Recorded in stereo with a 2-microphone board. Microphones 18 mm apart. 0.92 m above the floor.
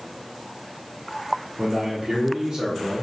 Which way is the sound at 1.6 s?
45° right (ahead or behind).